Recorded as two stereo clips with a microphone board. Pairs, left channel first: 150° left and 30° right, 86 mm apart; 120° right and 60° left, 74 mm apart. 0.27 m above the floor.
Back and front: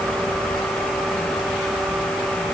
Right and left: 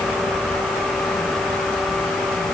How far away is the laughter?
I don't hear laughter.